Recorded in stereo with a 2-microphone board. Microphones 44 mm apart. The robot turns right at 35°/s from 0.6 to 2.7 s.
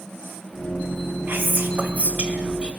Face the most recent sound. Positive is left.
turn(degrees=-35)